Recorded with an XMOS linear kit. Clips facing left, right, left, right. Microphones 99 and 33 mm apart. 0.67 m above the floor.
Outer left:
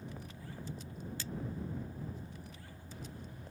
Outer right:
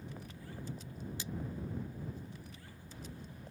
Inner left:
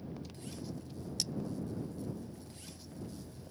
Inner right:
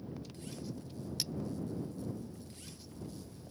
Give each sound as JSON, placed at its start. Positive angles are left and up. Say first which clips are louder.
{"t": 1.2, "sound": "cutlery clinking", "louder": "even, inner left 1 dB", "side_deg": -15}